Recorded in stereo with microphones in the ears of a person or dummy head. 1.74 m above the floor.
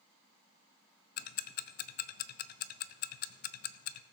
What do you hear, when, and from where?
1.2 s ticking: 50° left (ahead or behind), 0.5 m